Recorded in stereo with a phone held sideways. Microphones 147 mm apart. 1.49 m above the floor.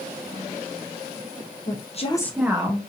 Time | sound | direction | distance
1.7 | a woman speaking | 60° left (ahead or behind) | 1.1 m